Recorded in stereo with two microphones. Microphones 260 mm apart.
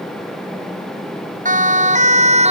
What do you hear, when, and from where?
1.4 s a siren: 30° right (ahead or behind); by 2.5 s 25° right (ahead or behind)